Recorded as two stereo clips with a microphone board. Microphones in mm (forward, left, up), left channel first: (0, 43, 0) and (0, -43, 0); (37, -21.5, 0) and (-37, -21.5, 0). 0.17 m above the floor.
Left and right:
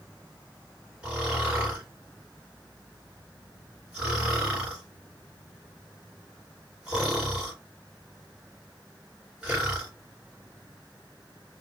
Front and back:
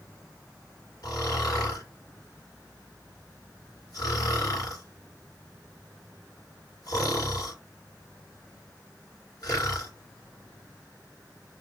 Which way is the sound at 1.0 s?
15° right.